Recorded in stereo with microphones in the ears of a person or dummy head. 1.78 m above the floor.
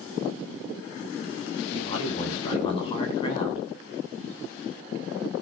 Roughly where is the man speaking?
Left.